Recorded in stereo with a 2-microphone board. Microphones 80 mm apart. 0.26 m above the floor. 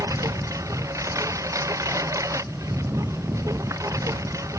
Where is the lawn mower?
40° right (ahead or behind).